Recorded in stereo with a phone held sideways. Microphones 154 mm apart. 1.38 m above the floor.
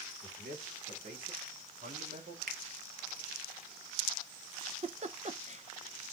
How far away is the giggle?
About 0.6 m.